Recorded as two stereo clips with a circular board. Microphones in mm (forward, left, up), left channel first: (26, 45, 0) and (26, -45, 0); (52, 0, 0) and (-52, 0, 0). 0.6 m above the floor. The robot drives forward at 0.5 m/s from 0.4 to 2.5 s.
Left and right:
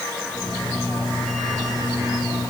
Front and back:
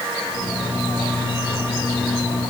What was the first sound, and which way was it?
Only background noise.